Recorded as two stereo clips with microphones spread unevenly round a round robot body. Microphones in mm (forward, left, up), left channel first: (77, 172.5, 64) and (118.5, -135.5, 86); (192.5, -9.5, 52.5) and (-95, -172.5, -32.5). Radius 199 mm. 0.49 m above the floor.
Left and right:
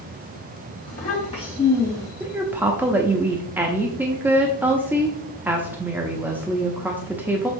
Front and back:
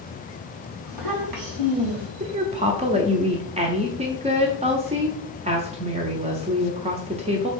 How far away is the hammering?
I don't hear hammering.